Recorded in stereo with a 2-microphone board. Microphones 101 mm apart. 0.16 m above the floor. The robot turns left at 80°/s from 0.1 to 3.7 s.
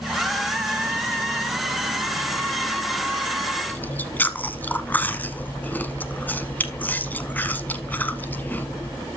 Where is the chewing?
20° left (ahead or behind), 1.0 m.